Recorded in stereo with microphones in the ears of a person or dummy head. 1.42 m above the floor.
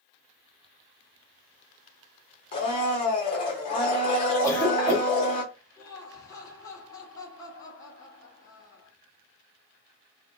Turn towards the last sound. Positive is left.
turn(degrees=20)  # may be behind; listen again after turning